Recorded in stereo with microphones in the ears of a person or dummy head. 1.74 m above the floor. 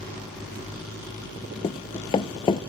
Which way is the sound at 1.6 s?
20° left (ahead or behind).